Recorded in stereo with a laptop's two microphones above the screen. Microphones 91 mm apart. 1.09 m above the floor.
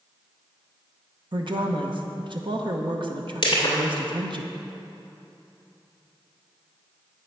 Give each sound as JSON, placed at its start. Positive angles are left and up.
{"t": 1.3, "sound": "a woman speaking", "side_deg": -60, "distance_m": 0.8}
{"t": 3.4, "sound": "crushing", "side_deg": 55, "distance_m": 2.5}